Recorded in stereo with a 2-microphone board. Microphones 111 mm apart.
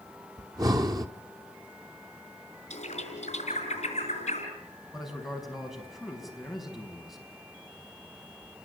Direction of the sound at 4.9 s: Centre (ahead or behind).